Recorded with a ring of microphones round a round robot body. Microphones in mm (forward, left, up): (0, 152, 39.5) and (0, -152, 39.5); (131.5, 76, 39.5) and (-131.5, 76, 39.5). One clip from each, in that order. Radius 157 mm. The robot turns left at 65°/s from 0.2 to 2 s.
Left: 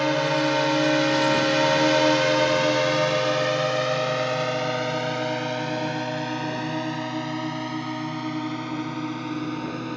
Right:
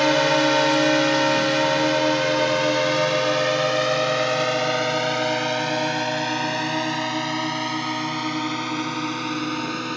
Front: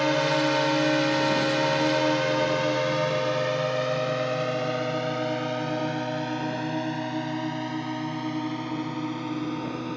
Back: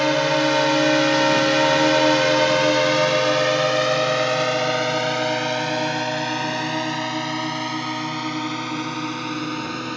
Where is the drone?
115° right; by 10.0 s 125° right.